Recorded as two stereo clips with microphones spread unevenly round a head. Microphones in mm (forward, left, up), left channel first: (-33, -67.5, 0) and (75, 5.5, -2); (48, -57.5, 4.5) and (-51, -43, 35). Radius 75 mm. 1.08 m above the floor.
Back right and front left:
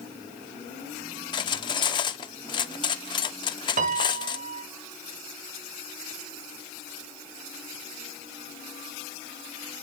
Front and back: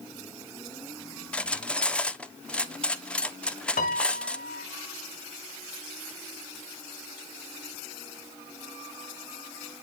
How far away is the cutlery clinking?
About 1.0 m.